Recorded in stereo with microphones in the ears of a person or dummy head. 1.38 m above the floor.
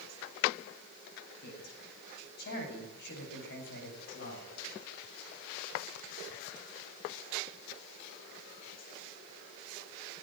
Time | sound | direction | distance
1.4 | a man speaking | 55° left (ahead or behind) | 9 m